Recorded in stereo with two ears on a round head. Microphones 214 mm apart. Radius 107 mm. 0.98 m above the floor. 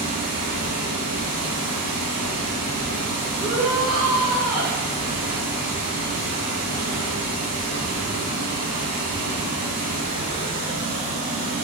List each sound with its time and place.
0.0 s running water: 35° right (ahead or behind), 1.2 m
3.4 s a shout: 5° right (ahead or behind), 1.6 m